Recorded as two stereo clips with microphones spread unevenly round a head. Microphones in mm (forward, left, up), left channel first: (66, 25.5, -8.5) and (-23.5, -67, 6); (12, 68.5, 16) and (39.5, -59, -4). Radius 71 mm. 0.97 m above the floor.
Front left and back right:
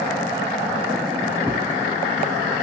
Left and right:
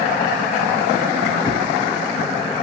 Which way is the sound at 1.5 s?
145° left.